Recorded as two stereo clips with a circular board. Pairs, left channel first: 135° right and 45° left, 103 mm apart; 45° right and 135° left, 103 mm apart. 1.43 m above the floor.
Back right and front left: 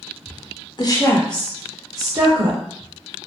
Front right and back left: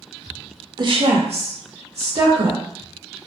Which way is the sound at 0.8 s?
Straight behind.